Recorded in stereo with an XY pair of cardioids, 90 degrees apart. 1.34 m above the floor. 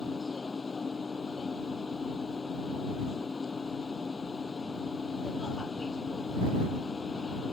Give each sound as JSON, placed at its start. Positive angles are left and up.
{"t": 0.0, "sound": "a machine running", "azimuth_deg": 30}